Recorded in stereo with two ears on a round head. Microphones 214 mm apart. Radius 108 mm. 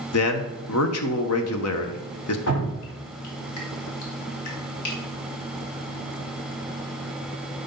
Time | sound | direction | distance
0.1 | a man speaking | 65° left (ahead or behind) | 1.2 m
2.5 | dripping | 65° left (ahead or behind) | 2.5 m